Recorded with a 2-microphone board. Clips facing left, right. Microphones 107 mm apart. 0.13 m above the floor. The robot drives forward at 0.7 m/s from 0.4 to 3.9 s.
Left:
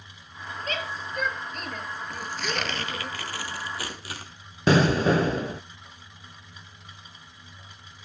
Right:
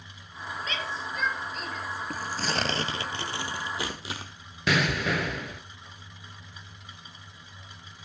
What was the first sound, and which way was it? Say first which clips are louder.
A shout: left 3 dB; 45° left (ahead or behind).